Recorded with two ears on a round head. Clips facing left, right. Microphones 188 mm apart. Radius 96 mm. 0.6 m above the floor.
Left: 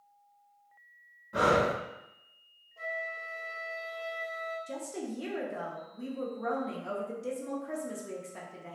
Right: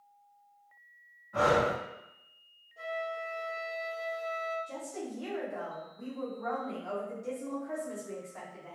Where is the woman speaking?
40° left (ahead or behind), 0.9 m.